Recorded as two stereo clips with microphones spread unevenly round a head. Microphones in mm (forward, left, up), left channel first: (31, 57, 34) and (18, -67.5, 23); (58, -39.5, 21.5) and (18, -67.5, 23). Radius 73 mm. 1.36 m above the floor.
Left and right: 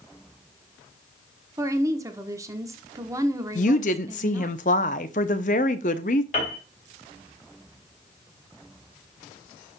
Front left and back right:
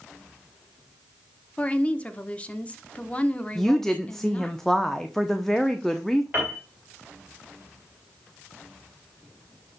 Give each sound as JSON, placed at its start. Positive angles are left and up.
{"t": 1.6, "sound": "a woman speaking", "azimuth_deg": -30, "distance_m": 1.1}
{"t": 3.5, "sound": "a woman speaking", "azimuth_deg": 120, "distance_m": 0.6}
{"t": 6.3, "sound": "a piano", "azimuth_deg": 135, "distance_m": 3.0}